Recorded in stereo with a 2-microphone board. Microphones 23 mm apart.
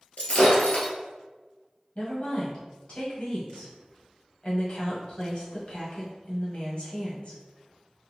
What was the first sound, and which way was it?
Breaking glass, 65° left (ahead or behind).